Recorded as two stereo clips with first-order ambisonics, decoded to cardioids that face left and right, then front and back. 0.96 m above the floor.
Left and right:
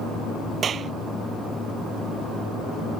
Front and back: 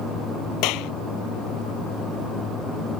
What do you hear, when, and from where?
0.6 s a clap: 25° right